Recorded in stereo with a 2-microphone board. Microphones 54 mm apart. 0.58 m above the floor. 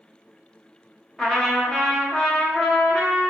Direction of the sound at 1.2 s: 10° left (ahead or behind).